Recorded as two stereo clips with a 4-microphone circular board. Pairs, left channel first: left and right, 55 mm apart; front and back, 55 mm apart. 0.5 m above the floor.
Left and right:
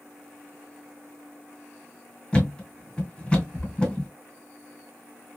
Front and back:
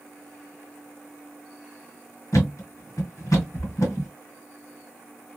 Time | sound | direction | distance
2.3 | a thud | 15° left | 1.8 m